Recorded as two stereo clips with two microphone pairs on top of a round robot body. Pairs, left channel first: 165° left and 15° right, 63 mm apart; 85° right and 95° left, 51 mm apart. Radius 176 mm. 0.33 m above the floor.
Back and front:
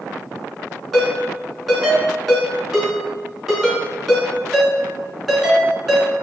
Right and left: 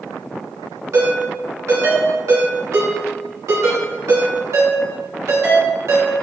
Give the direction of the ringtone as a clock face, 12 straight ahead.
10 o'clock.